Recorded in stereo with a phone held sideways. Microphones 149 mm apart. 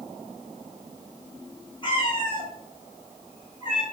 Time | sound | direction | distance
1.8 | a cat meowing | 30° left (ahead or behind) | 1.1 m